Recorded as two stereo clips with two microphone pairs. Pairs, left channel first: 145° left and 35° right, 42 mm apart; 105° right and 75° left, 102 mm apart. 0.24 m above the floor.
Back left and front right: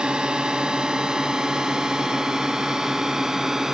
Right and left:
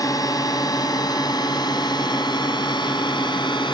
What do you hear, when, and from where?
0.0 s a drone: 90° right; by 3.8 s 110° right